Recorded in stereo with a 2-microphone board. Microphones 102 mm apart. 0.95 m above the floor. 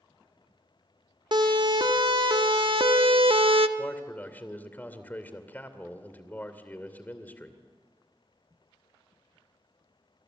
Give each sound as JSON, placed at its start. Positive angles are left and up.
{"t": 1.3, "sound": "a siren", "side_deg": -50, "distance_m": 2.5}
{"t": 3.8, "sound": "a man speaking", "side_deg": 20, "distance_m": 2.5}